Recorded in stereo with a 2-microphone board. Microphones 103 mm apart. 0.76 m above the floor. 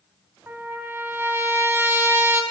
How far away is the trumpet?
About 2.5 m.